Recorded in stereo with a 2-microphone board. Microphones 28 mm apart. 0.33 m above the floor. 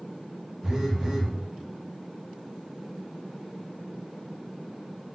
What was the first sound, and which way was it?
A phone buzzing, 10° right (ahead or behind).